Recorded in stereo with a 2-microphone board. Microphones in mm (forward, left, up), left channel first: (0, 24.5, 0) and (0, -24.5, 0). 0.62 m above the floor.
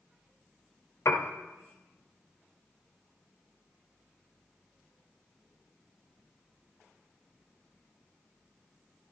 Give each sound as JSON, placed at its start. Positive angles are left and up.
{"t": 1.1, "sound": "a piano", "side_deg": 65, "distance_m": 0.8}